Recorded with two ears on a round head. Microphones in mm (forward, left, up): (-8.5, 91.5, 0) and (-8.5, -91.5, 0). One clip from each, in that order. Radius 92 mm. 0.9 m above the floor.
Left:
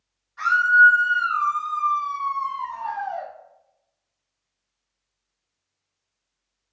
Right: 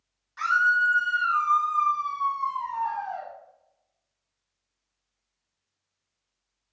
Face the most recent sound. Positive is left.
turn(degrees=25)  # may be behind; listen again after turning